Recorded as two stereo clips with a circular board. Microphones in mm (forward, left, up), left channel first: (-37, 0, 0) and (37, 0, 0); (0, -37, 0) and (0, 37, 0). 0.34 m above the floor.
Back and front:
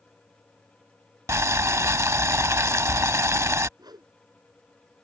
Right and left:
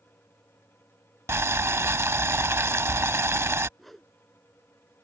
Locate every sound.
1.3 s boiling: 40° left
3.8 s a whoosh: 5° right